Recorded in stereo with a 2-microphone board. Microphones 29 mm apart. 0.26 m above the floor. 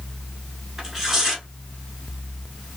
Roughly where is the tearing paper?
Centre.